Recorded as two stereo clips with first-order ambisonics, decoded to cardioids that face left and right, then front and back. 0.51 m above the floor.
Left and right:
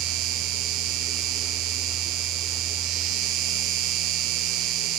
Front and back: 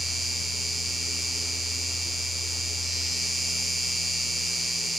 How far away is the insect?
About 1.2 m.